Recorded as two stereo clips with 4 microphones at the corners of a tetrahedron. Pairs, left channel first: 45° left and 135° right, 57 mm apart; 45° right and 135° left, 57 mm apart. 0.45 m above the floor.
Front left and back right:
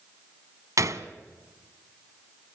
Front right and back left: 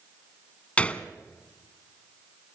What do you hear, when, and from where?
0.8 s a gunshot: 115° right, 1.1 m